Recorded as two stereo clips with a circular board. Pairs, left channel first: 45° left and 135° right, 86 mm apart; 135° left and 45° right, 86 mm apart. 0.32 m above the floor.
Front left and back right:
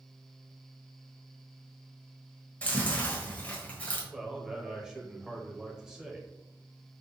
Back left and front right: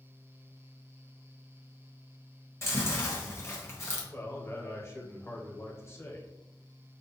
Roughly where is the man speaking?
Behind left.